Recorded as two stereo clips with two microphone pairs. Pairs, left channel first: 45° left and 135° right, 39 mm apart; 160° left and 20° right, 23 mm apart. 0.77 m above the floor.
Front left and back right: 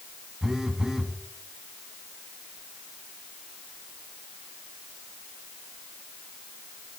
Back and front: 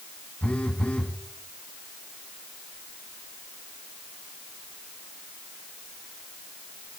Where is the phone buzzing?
150° left, 1.2 m.